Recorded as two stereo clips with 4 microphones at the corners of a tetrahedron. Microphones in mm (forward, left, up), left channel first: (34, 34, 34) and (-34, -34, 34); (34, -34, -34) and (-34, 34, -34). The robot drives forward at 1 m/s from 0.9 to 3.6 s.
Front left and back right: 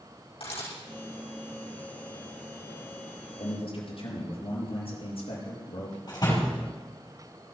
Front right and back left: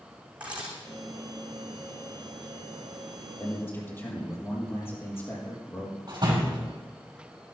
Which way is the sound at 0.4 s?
55° left.